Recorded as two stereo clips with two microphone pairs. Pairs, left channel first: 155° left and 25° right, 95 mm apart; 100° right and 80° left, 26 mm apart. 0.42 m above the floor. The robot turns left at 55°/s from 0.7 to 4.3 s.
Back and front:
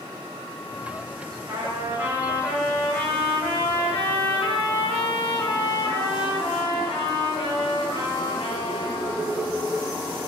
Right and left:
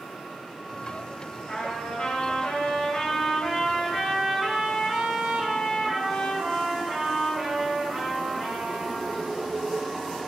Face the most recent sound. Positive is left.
turn(degrees=145)